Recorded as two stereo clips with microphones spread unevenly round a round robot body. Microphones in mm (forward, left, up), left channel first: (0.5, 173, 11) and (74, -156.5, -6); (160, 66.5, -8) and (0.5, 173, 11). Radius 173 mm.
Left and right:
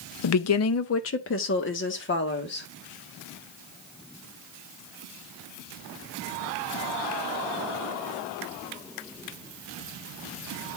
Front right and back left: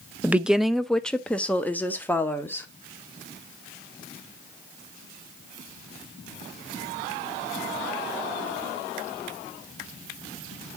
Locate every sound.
0.2 s a woman speaking: 65° left, 0.6 m; by 2.7 s 45° left, 2 m